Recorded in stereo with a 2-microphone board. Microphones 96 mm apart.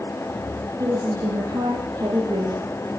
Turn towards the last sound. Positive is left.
turn(degrees=-55)  # may be behind; listen again after turning